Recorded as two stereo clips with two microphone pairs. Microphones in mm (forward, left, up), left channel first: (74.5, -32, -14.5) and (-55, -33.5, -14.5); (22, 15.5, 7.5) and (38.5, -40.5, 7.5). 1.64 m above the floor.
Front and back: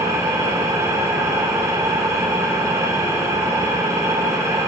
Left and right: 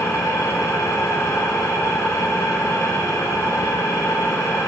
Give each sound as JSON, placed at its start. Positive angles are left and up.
{"t": 0.0, "sound": "an engine running", "azimuth_deg": 115, "distance_m": 1.0}